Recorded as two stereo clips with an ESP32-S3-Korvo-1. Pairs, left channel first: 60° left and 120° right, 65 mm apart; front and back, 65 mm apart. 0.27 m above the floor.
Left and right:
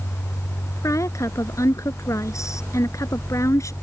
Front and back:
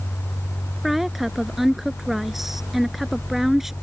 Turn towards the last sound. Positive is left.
turn(degrees=95)